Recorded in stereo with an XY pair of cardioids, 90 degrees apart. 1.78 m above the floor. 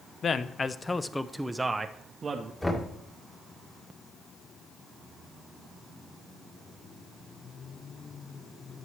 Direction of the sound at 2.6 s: 15° left.